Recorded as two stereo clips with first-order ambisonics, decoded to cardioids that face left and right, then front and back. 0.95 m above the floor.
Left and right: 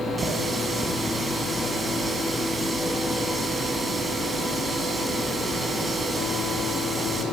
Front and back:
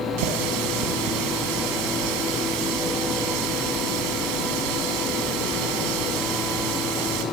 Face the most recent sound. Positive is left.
turn(degrees=-170)